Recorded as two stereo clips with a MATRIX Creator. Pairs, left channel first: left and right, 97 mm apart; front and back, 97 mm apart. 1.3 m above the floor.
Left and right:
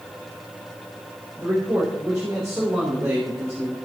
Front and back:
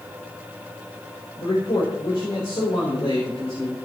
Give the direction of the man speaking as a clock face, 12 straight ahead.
1 o'clock.